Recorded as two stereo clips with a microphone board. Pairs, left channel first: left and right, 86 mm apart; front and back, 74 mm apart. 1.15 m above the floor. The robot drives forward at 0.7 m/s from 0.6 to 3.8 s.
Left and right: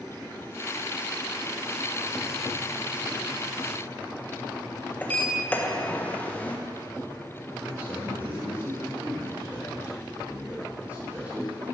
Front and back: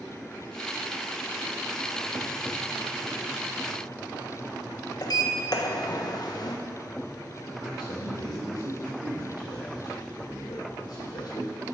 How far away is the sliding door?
About 1.1 m.